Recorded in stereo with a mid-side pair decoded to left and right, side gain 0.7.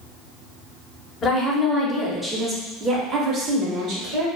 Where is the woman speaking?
30° left, 1.0 m; by 4.3 s 55° right, 1.3 m.